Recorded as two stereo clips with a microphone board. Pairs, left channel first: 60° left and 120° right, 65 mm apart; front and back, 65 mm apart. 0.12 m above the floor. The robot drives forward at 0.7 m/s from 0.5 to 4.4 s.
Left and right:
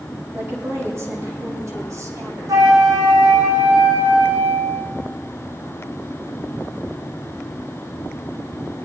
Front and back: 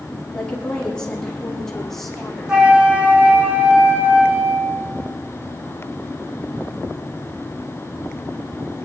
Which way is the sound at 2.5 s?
105° right.